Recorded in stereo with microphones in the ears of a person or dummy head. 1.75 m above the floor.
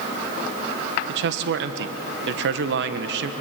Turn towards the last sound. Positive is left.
turn(degrees=-70)  # may be behind; listen again after turning